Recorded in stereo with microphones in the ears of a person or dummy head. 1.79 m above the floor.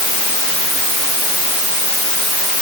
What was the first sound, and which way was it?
Only background noise.